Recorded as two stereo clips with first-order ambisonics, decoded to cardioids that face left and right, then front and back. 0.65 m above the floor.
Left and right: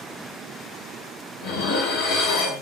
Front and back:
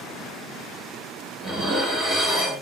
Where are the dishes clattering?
105° left, 1.1 m.